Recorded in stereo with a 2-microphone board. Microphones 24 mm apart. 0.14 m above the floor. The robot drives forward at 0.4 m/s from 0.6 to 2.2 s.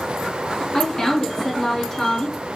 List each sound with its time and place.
0.7 s a woman speaking: 25° left (ahead or behind), 1.3 m; by 2.4 s 20° left (ahead or behind), 1.5 m